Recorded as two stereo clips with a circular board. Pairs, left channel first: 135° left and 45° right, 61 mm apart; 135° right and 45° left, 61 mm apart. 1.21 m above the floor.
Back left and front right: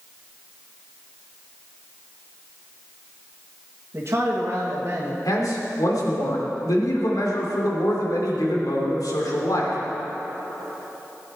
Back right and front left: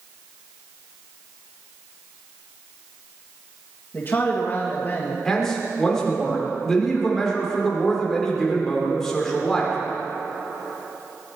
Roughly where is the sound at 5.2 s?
Behind left.